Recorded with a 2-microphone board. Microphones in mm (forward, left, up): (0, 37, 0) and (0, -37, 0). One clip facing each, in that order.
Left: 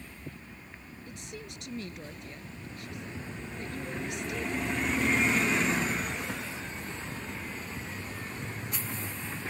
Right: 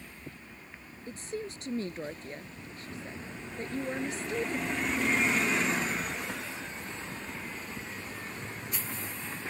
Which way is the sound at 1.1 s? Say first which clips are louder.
Right 8 dB; 35° right (ahead or behind).